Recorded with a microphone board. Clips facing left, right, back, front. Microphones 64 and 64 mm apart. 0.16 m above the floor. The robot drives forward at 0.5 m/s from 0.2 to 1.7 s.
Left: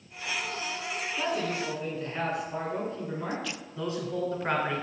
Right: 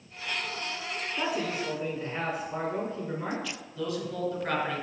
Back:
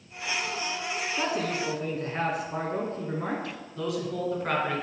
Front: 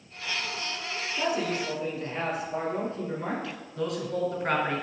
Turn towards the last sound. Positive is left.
turn(degrees=85)